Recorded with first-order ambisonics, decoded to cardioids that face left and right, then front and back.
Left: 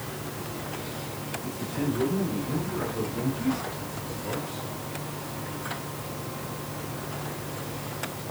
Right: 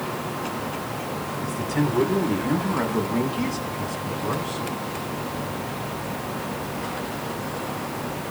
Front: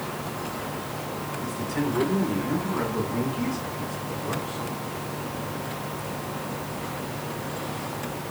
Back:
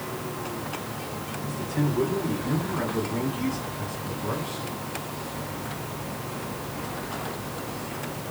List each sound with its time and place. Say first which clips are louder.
1.4 s a man speaking: right 6 dB, even; 70° right, 4.5 m; by 4.7 s 105° right, 5.5 m